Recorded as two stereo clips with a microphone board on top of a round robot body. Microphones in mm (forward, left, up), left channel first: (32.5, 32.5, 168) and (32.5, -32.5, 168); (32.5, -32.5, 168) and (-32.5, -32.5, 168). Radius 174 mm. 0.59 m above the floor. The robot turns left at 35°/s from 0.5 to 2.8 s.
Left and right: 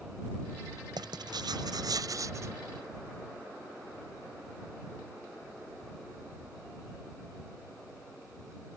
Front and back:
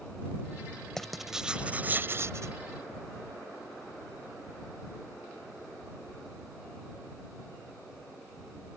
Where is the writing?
85° right; by 2.6 s 140° right.